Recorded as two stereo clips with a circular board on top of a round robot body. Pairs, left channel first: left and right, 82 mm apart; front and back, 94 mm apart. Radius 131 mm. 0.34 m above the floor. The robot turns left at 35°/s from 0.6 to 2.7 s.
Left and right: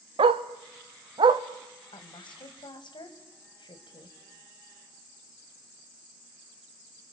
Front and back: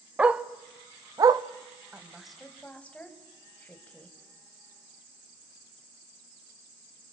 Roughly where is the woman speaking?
Left.